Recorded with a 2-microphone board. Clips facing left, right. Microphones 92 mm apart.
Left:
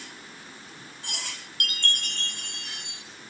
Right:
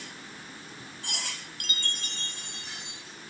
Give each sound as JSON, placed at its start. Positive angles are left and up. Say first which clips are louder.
{"t": 1.6, "sound": "a chime", "louder": "left 7 dB", "side_deg": 65, "distance_m": 0.5}